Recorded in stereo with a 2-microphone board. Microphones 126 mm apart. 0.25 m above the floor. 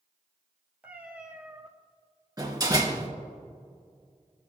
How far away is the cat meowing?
About 1.6 m.